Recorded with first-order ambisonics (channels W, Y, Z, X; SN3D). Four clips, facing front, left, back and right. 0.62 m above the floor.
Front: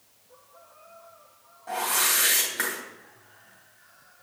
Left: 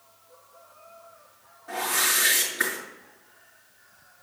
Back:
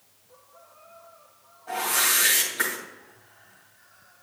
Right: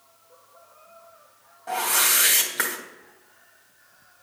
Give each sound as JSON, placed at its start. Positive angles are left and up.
{"t": 1.7, "sound": "a whoosh", "azimuth_deg": -80, "distance_m": 2.5}